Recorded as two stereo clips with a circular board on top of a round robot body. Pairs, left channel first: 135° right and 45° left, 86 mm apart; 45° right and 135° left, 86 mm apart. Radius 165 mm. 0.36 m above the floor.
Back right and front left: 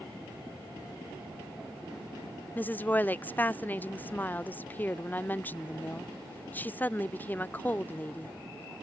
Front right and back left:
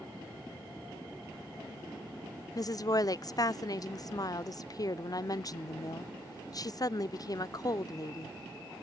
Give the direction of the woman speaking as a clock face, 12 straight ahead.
2 o'clock.